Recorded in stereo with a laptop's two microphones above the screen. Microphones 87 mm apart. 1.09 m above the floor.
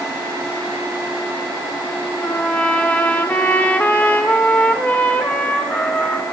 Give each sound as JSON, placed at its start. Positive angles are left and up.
{"t": 2.2, "sound": "a trumpet", "side_deg": 20, "distance_m": 0.9}